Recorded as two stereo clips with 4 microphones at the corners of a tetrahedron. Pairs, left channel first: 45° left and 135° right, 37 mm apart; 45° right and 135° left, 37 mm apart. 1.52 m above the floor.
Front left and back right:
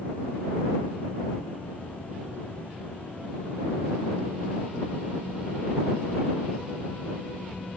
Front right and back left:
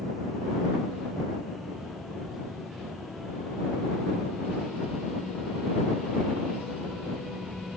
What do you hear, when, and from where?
Only background noise.